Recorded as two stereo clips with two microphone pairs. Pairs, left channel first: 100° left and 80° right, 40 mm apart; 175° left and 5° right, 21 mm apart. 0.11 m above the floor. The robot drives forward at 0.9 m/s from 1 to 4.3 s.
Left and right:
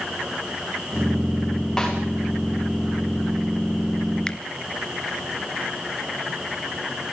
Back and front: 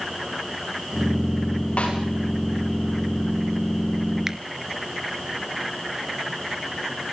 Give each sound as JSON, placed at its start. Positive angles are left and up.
{"t": 1.8, "sound": "a snare drum", "azimuth_deg": 180, "distance_m": 9.5}
{"t": 4.3, "sound": "a finger snap", "azimuth_deg": 50, "distance_m": 1.5}